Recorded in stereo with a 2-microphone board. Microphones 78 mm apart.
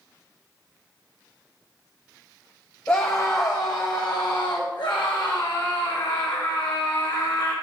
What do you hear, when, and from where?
2.9 s a scream: 20° left (ahead or behind), 0.7 m; by 7.5 s 75° left (ahead or behind), 2.5 m